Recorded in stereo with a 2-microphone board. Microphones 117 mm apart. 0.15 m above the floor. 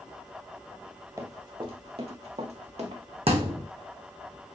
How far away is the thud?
About 1.8 m.